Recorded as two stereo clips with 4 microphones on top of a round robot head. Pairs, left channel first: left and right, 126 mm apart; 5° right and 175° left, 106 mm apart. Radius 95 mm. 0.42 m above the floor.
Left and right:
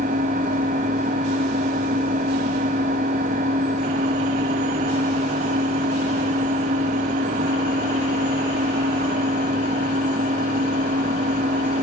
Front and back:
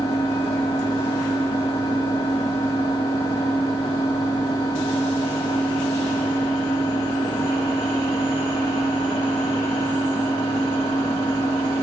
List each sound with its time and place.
0.0 s an engine running: 65° right, 2.5 m